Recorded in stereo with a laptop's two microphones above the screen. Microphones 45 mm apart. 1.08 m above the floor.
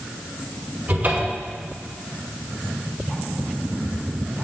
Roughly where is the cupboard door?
Right.